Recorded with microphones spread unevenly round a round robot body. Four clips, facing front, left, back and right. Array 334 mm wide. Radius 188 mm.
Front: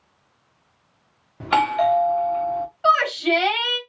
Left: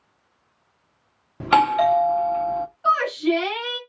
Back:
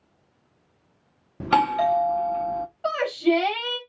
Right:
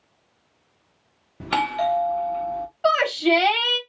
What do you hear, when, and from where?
1.4 s a doorbell: 135° left, 1.1 m
2.8 s a shout: 80° right, 2.5 m